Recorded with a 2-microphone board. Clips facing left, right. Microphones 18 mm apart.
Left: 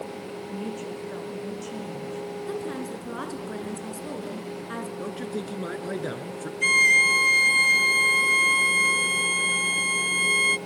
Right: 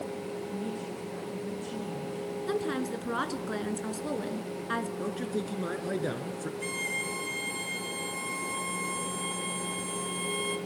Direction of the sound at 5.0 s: 10° left (ahead or behind).